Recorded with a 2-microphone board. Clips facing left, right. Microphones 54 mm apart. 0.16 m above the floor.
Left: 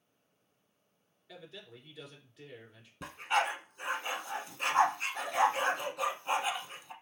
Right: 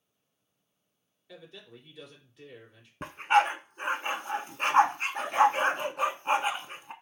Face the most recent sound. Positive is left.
turn(degrees=-45)  # may be behind; listen again after turning